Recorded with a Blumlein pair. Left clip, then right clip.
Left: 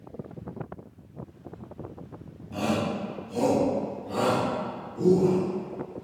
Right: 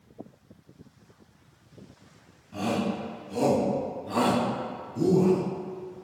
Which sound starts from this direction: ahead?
A shout, at 2.5 s.